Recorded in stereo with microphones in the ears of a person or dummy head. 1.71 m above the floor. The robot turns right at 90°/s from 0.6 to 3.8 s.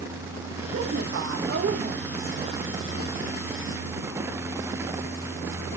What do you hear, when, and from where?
0.7 s a woman speaking: 140° right, 1.0 m; by 2.3 s 5° left, 1.0 m